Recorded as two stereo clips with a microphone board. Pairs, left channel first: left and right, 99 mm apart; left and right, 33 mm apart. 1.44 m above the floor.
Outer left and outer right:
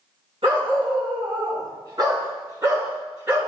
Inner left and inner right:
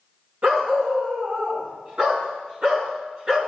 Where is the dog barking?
65° right (ahead or behind), 5.5 m; by 3.4 s 30° right (ahead or behind), 7.5 m.